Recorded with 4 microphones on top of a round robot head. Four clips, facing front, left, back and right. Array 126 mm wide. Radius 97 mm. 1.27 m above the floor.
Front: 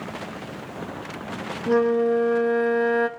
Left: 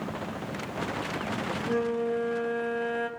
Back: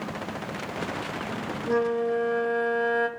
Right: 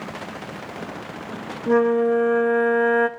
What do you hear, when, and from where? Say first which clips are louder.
1.7 s a flute: right 11 dB, front 5 dB; 65° right, 0.7 m